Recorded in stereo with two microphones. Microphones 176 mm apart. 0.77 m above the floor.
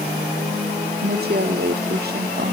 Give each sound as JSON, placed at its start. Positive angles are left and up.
{"t": 1.0, "sound": "a woman speaking", "side_deg": -65, "distance_m": 1.4}